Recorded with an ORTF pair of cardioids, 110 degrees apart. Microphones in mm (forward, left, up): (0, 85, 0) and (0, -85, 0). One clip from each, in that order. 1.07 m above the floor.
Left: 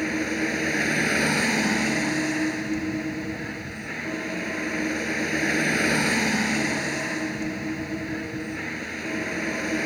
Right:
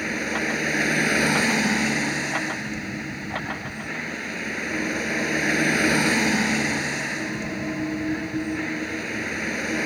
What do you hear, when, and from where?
0.0 s a vehicle: 10° right